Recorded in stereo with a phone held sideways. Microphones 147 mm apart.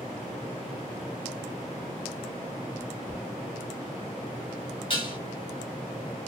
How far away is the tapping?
About 1.1 m.